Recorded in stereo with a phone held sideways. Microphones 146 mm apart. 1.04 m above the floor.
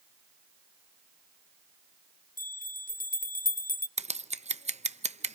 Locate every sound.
2.4 s a bell: 75° left (ahead or behind), 0.6 m
4.0 s scissors: 50° right (ahead or behind), 0.6 m